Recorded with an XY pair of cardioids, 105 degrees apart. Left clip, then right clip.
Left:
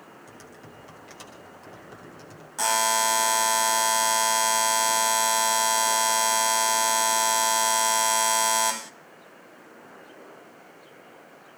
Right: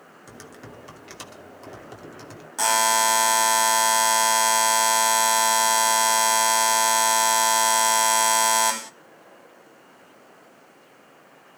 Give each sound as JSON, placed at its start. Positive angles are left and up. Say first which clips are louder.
{"t": 0.3, "sound": "typing on a keyboard", "louder": "right 3 dB", "azimuth_deg": -50, "distance_m": 2.5}
{"t": 2.6, "sound": "a buzzer", "louder": "right 3 dB", "azimuth_deg": -25, "distance_m": 0.9}